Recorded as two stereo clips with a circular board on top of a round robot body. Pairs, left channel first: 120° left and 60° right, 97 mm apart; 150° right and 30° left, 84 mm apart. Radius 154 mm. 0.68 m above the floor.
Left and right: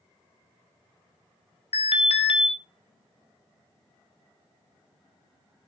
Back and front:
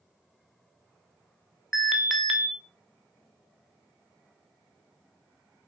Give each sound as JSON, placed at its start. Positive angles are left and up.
{"t": 1.7, "sound": "an alarm", "azimuth_deg": 120, "distance_m": 2.5}